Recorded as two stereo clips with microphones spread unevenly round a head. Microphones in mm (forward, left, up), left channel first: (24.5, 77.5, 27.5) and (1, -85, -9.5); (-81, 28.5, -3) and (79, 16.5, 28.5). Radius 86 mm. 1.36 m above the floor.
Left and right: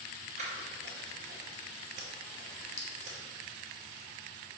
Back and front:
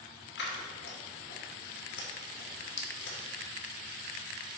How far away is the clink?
About 1.2 m.